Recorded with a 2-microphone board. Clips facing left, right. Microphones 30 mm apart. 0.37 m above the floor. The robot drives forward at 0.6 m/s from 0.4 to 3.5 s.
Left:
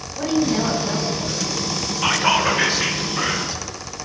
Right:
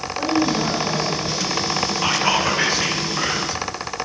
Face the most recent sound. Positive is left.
turn(degrees=10)  # may be behind; listen again after turning